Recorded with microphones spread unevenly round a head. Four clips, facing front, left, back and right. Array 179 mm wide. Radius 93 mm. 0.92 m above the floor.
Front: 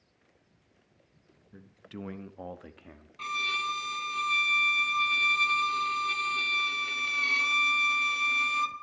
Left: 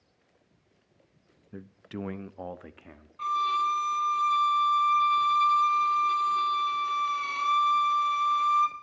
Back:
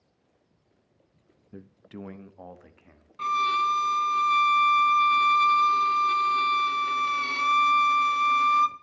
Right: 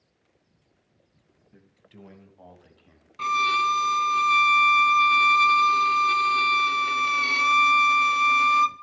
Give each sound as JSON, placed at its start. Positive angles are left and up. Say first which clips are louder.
{"t": 1.5, "sound": "a man speaking", "louder": "left 13 dB, back 2 dB", "azimuth_deg": 125, "distance_m": 0.7}
{"t": 3.2, "sound": "a violin", "louder": "right 3 dB, back 10 dB", "azimuth_deg": -110, "distance_m": 0.7}